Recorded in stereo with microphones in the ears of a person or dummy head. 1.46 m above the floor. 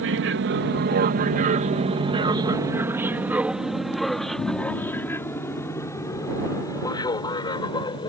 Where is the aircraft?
60° right (ahead or behind); by 8.1 s 20° left (ahead or behind).